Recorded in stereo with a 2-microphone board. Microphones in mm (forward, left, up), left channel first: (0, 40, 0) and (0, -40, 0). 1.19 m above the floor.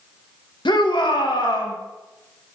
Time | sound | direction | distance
0.7 | a shout | 70° left (ahead or behind) | 1.4 m